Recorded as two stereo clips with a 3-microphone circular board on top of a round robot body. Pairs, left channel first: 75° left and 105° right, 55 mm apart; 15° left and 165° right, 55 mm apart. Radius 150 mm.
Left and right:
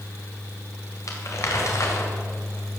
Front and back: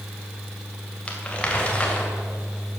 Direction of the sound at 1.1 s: 85° left.